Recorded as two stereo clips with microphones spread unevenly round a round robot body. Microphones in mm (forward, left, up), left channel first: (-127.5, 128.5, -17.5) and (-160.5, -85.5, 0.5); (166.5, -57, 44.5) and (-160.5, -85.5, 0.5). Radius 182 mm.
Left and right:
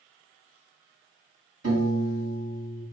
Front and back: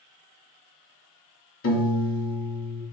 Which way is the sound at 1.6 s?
50° right.